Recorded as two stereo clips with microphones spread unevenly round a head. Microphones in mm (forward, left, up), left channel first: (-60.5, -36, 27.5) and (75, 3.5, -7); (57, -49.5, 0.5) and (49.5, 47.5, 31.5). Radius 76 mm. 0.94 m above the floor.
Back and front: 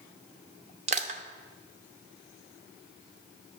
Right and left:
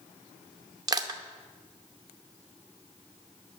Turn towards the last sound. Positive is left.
turn(degrees=65)